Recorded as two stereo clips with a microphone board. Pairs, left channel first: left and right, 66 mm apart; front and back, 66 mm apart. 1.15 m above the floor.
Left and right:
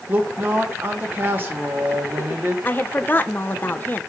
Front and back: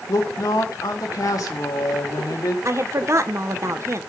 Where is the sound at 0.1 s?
30° right, 2.0 m.